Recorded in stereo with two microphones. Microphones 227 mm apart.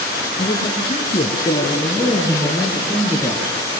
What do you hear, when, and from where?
0.4 s a man speaking: 35° left (ahead or behind), 3.5 m; by 3.5 s 5° right (ahead or behind), 3.5 m